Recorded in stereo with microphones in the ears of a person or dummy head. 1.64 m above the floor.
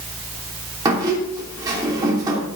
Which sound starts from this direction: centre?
A squeak, at 0.8 s.